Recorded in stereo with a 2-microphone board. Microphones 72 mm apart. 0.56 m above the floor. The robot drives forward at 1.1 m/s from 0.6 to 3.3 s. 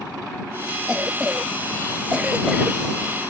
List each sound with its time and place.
0.9 s a cough: 15° right (ahead or behind)